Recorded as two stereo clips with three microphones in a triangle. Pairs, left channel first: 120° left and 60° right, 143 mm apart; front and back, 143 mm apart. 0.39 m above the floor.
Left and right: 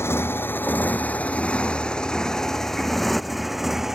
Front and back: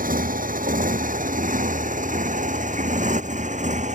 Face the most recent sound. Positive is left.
turn(degrees=-145)